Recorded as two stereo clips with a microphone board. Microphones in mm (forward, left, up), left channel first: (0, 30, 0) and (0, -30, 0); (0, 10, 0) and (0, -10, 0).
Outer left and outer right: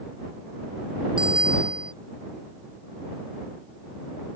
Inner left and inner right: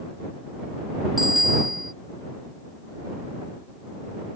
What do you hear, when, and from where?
1.2 s a bicycle bell: 15° right (ahead or behind)